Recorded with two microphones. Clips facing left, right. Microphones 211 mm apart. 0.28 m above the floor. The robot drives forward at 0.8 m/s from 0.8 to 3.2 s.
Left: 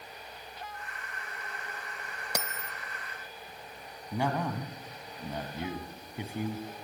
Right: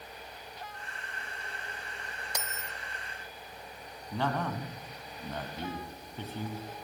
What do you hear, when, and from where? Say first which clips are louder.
2.4 s a bell: left 6 dB; 65° left (ahead or behind), 0.7 m; by 2.7 s 50° left (ahead or behind), 0.8 m
4.1 s a man speaking: left 1 dB; 10° left (ahead or behind), 2 m